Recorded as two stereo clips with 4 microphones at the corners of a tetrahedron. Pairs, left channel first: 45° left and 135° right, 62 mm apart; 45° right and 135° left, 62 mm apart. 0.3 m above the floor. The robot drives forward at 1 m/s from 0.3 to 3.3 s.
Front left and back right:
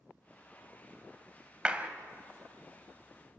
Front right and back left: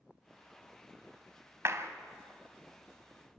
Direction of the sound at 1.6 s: 155° left.